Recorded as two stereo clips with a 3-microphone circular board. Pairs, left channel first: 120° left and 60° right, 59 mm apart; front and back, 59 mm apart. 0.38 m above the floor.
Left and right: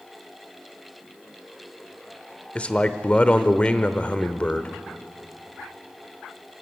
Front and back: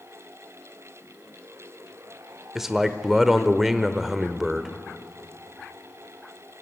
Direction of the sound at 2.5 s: 105° left.